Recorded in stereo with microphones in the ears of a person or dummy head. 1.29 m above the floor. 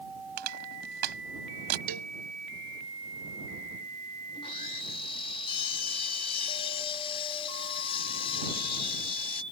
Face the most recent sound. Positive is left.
turn(degrees=35)  # may be behind; listen again after turning